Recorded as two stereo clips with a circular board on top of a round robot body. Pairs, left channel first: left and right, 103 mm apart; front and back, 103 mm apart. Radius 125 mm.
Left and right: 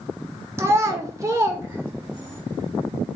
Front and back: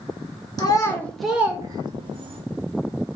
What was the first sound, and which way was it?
A child speaking, 35° right.